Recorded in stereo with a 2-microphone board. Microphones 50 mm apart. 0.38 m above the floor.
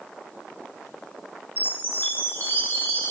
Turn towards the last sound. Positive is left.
turn(degrees=45)  # may be behind; listen again after turning